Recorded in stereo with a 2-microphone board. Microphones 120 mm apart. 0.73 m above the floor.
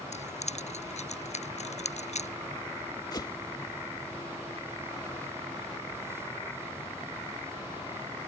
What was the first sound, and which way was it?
Keys jangling, 70° left (ahead or behind).